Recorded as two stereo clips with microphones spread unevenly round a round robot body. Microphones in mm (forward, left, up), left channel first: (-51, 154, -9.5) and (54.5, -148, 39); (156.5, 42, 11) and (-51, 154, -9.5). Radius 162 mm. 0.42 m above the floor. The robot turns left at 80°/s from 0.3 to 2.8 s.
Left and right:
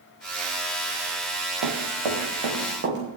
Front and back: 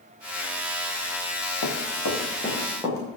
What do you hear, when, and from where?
1.6 s running footsteps: 35° right, 3.5 m; by 3.0 s 130° right, 5 m